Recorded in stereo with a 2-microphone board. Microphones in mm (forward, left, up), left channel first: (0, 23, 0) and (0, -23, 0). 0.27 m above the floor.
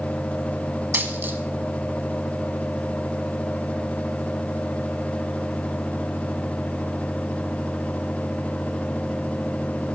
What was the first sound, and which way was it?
A dropped coin, 45° right (ahead or behind).